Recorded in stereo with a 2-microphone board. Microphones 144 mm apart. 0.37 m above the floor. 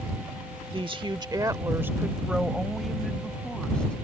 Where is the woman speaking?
35° right (ahead or behind); by 4.0 s 5° left (ahead or behind).